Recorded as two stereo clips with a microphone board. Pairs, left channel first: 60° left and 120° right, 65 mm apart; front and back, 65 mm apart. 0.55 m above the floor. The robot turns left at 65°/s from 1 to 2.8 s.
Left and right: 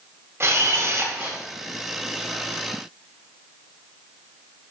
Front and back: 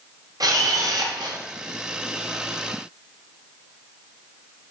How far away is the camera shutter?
About 1.8 m.